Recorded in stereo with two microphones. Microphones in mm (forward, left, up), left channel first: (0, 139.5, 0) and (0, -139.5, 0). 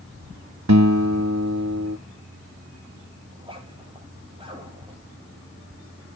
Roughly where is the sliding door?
No sliding door in this recording.